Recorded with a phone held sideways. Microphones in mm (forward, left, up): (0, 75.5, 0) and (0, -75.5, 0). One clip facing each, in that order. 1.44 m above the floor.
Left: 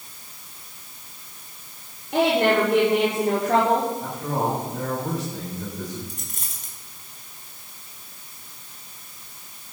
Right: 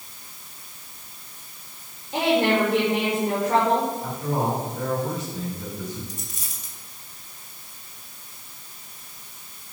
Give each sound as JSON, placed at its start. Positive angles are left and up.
{"t": 2.1, "sound": "a woman speaking", "side_deg": 75, "distance_m": 5.0}
{"t": 4.0, "sound": "a man speaking", "side_deg": 90, "distance_m": 9.5}
{"t": 6.1, "sound": "a dropped coin", "side_deg": 60, "distance_m": 5.0}